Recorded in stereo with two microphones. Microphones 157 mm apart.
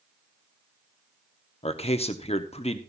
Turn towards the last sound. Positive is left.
turn(degrees=40)  # may be behind; listen again after turning